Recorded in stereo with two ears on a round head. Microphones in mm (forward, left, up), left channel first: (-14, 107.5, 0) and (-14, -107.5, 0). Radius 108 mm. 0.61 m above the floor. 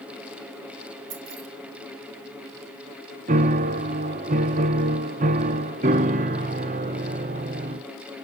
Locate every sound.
1.1 s keys jangling: 75° right (ahead or behind), 1.5 m
3.3 s a piano: 35° right (ahead or behind), 0.6 m